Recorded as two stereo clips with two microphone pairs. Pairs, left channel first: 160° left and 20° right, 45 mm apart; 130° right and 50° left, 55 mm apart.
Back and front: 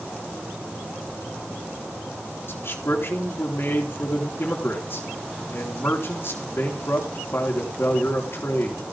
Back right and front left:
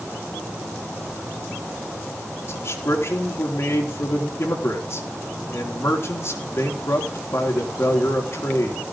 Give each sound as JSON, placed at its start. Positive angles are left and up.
{"t": 2.5, "sound": "a man speaking", "azimuth_deg": -165, "distance_m": 4.0}